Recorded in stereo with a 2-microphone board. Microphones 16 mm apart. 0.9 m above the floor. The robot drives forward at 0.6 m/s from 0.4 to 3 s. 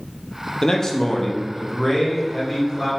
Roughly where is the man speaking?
Left.